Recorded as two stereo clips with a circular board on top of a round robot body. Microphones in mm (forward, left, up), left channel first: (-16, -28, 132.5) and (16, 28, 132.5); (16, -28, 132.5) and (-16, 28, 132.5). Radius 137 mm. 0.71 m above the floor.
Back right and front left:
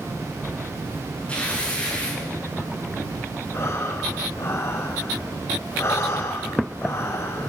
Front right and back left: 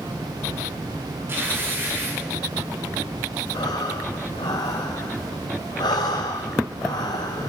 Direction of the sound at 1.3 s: 170° left.